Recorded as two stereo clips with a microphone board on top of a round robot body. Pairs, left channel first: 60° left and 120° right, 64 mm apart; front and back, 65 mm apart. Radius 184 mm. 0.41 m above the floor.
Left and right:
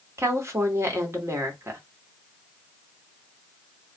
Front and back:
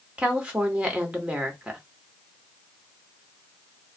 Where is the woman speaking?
120° right, 1.6 m.